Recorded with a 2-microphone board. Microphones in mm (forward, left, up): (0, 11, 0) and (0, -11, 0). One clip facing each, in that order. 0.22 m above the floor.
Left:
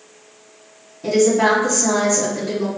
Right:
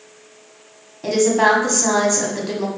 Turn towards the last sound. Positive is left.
turn(degrees=-35)  # may be behind; listen again after turning